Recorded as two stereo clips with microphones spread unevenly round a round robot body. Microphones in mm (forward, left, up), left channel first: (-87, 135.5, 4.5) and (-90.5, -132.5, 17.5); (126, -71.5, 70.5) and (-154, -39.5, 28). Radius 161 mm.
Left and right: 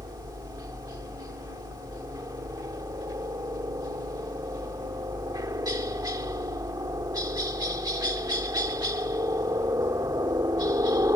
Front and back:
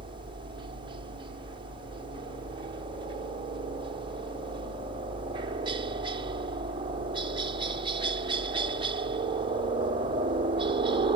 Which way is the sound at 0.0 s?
155° right.